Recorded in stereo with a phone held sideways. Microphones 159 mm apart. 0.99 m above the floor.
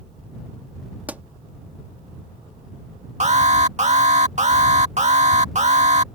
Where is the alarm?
45° right (ahead or behind).